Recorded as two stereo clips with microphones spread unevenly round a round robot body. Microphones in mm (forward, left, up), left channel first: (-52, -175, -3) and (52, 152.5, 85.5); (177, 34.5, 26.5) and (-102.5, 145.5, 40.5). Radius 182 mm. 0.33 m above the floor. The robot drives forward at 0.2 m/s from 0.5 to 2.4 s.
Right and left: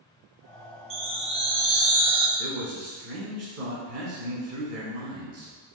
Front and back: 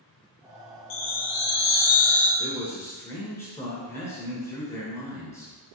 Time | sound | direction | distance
0.9 | a chime | 10° right | 0.7 m
2.4 | a man speaking | 45° left | 1.2 m